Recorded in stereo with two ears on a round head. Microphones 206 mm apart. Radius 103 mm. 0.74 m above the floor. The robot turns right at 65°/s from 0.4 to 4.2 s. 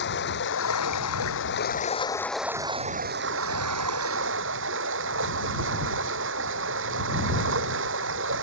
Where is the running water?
50° left; by 8.4 s 60° right.